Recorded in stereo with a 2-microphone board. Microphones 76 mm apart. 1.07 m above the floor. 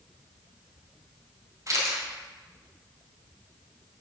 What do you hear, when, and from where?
1.7 s a camera shutter: 50° right (ahead or behind), 2.5 m